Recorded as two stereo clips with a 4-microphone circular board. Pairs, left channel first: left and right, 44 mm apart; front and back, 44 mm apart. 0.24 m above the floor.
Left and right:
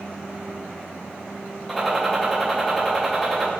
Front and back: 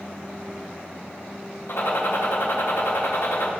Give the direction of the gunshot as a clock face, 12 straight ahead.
12 o'clock.